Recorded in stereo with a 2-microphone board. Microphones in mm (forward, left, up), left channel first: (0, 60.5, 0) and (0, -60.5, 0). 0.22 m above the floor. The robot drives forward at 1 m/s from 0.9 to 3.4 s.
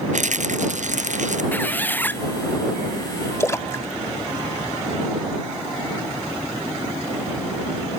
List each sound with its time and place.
0.1 s a rattle: 85° right; by 1.4 s 90° right
1.5 s a squeak: 15° left (ahead or behind)
3.4 s a splash: 25° left (ahead or behind)